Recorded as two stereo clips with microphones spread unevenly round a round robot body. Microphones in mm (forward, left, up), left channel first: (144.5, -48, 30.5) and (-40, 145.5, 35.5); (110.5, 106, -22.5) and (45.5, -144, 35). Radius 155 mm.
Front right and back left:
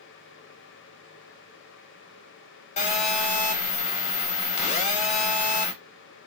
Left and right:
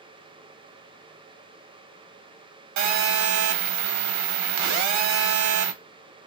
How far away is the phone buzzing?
About 0.6 m.